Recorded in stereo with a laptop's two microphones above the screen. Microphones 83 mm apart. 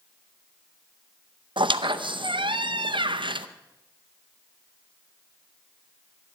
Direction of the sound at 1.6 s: 75° right (ahead or behind).